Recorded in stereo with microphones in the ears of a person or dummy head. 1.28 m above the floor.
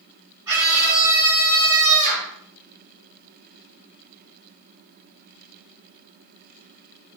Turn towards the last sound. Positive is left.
turn(degrees=-20)  # may be behind; listen again after turning